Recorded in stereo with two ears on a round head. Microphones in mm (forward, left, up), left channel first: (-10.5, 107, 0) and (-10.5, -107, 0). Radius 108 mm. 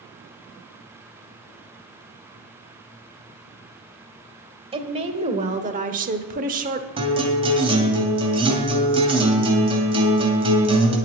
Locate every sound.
4.7 s a woman speaking: 25° right (ahead or behind), 1.6 m; by 6.9 s 35° right (ahead or behind), 1.0 m
7.0 s a guitar: 25° right (ahead or behind), 2.5 m